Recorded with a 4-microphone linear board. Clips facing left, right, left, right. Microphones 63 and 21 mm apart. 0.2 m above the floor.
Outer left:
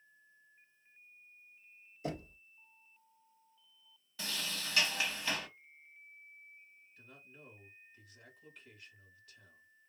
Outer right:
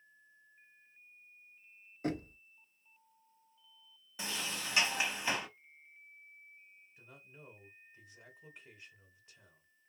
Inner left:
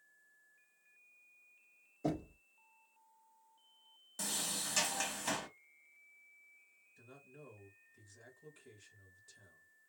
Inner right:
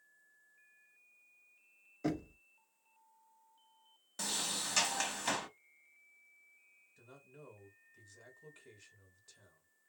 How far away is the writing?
I don't hear writing.